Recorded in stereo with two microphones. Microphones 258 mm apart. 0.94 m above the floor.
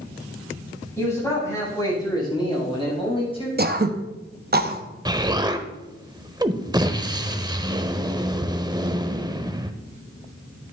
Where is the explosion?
15° right (ahead or behind), 0.7 m.